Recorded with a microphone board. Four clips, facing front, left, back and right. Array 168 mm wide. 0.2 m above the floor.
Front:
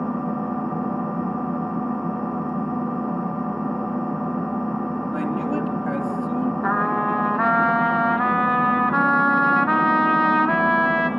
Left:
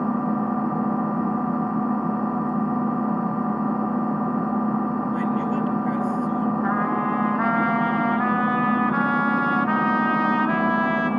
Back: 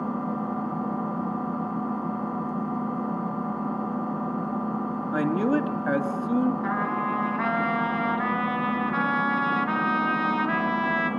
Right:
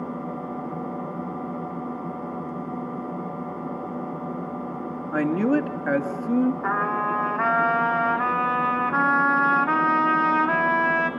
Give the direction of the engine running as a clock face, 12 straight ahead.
9 o'clock.